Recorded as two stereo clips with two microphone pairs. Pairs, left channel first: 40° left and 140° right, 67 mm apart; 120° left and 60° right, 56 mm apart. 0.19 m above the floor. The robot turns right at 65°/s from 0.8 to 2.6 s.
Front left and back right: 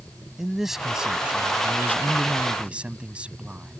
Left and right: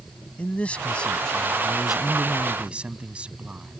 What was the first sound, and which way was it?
A man speaking, 145° left.